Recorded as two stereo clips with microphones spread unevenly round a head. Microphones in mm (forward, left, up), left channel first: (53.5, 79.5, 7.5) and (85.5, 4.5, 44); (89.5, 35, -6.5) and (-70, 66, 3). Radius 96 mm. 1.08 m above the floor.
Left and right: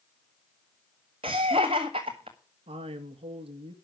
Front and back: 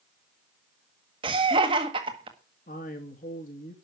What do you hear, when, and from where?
1.2 s laughter: 125° right, 1.5 m
2.7 s a man speaking: 60° right, 1.8 m